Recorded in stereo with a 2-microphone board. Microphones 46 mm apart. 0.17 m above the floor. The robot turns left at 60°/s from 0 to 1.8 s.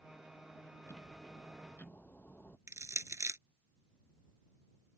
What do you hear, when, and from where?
0.9 s ticking: 95° left; by 2.6 s 40° left
2.7 s crushing: 70° right (ahead or behind)